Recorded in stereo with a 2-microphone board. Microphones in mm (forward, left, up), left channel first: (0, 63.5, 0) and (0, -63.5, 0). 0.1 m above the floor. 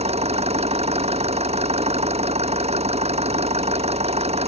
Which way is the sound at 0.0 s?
55° right (ahead or behind).